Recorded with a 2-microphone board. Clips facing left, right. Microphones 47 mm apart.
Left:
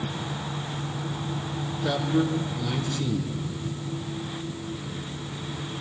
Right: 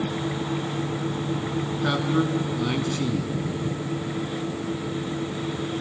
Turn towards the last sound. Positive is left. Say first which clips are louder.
# even
turn(degrees=-50)  # may be behind; listen again after turning